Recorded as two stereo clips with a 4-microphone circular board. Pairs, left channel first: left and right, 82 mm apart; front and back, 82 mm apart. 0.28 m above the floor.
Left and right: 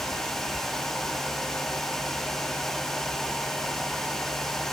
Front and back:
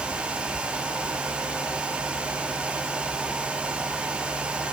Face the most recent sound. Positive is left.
No sound to turn to.